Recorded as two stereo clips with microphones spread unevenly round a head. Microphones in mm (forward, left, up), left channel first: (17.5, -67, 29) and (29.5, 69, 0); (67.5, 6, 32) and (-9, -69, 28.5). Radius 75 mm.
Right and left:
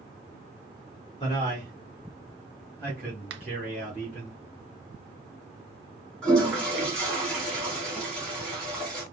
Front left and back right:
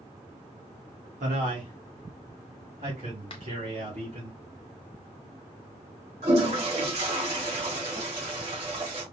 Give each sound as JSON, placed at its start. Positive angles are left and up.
{"t": 1.2, "sound": "a man speaking", "azimuth_deg": -165, "distance_m": 1.4}
{"t": 3.3, "sound": "a finger snap", "azimuth_deg": 100, "distance_m": 0.7}
{"t": 6.2, "sound": "a toilet flushing", "azimuth_deg": 180, "distance_m": 1.9}